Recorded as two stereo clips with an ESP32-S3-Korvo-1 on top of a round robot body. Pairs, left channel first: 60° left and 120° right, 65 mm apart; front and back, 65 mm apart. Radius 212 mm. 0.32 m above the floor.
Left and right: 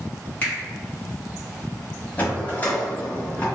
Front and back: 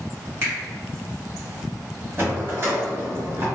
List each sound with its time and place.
0.4 s a finger snap: 125° left, 1.8 m
2.2 s a drawer: 125° left, 1.0 m